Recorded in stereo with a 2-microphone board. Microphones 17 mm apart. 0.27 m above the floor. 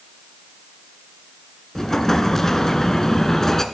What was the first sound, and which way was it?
An explosion, 30° left (ahead or behind).